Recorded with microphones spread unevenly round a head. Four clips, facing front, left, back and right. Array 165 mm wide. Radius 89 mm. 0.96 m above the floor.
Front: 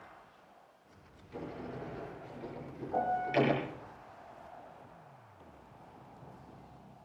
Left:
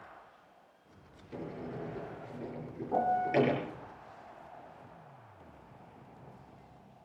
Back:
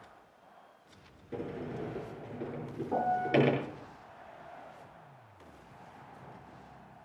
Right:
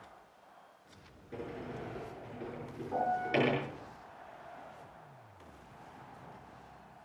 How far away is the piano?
About 3 m.